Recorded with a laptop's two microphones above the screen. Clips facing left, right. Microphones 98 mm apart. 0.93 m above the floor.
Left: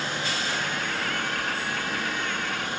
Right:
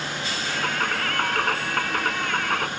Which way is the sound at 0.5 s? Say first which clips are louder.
Right 3 dB; 60° right (ahead or behind).